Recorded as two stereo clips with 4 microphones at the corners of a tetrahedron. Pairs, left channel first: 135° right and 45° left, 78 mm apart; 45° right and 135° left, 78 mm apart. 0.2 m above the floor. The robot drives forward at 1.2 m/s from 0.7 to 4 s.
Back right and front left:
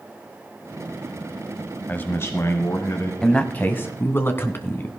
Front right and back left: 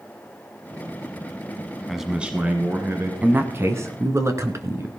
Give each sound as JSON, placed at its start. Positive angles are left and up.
{"t": 1.9, "sound": "a man speaking", "azimuth_deg": -135, "distance_m": 1.0}
{"t": 3.2, "sound": "a man speaking", "azimuth_deg": 155, "distance_m": 1.0}